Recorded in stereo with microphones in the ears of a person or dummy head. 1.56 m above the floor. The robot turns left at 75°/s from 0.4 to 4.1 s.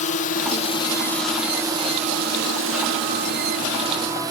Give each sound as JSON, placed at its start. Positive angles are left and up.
{"t": 0.0, "sound": "a drone", "side_deg": 40}